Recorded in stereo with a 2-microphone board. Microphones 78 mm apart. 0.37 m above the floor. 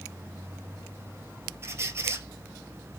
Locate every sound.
1.6 s a squeak: 35° right (ahead or behind), 0.5 m